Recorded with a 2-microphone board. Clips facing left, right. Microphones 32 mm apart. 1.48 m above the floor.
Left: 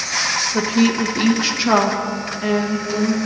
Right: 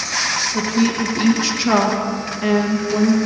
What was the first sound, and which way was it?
A woman speaking, 35° left (ahead or behind).